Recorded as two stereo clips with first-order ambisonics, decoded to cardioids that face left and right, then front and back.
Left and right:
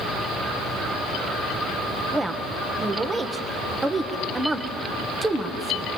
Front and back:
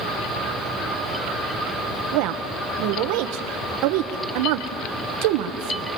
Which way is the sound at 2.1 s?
170° right.